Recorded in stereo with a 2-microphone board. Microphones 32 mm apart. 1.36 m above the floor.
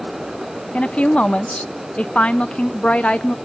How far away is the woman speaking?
About 0.8 m.